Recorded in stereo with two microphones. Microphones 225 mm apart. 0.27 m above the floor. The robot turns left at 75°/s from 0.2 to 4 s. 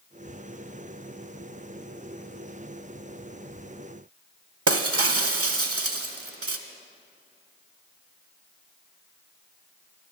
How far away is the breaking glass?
About 0.5 m.